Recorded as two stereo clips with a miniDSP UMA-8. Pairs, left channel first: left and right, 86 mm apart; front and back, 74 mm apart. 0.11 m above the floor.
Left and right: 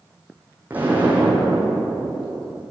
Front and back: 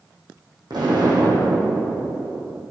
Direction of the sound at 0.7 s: 160° right.